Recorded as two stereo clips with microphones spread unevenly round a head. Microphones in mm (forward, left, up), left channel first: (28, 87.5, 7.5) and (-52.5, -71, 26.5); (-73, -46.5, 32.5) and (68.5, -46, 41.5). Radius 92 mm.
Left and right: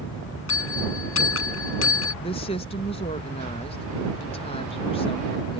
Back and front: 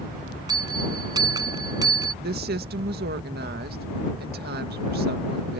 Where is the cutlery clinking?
I don't hear cutlery clinking.